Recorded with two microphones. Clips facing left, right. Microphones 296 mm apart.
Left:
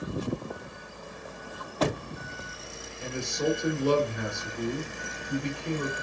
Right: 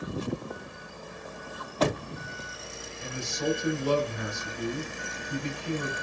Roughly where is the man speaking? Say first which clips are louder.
Left 2 dB; left.